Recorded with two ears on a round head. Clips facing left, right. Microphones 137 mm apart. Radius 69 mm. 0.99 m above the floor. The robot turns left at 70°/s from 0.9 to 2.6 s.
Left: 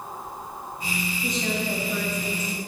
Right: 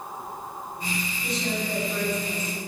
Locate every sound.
1.2 s a woman speaking: 125° left, 5.5 m; by 2.6 s 30° left, 5.5 m